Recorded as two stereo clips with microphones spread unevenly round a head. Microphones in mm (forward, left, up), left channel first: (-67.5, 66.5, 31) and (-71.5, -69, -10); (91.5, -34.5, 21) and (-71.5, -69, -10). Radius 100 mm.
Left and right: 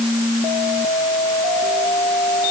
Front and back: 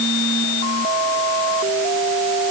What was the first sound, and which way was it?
Only background noise.